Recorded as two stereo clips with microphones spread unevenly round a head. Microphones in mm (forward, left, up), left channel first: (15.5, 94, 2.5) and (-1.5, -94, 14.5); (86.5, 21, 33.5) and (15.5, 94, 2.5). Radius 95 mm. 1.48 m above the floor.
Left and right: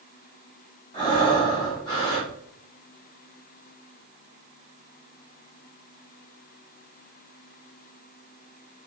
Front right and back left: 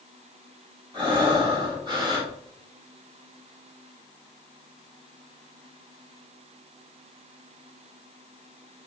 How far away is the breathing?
About 1.1 m.